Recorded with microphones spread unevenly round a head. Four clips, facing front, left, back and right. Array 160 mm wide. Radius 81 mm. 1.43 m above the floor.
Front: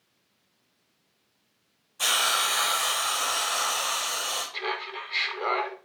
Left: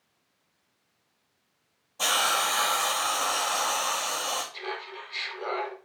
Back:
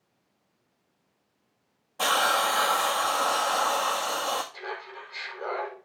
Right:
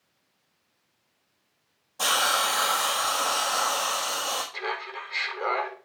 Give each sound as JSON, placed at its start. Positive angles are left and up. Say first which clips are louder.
{"t": 2.0, "sound": "a hiss", "louder": "right 1 dB, back 4 dB", "azimuth_deg": -170, "distance_m": 1.5}
{"t": 4.5, "sound": "laughter", "louder": "right 4 dB, front 5 dB", "azimuth_deg": -35, "distance_m": 4.5}